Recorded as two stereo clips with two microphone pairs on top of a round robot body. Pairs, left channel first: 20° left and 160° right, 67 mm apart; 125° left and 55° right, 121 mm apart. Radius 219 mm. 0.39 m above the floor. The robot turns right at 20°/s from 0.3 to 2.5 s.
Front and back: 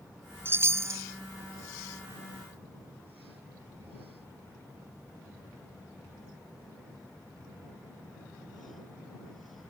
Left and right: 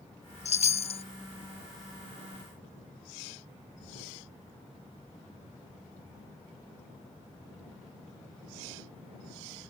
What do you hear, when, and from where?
0.5 s a chime: 140° left; by 1.0 s 155° left